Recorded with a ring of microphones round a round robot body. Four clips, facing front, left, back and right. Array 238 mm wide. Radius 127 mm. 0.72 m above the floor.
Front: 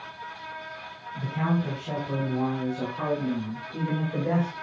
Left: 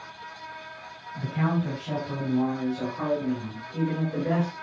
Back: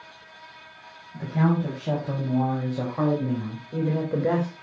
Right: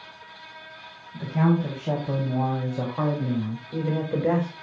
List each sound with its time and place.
1.1 s a man speaking: 140° right, 4.5 m; by 4.5 s 135° right, 2.5 m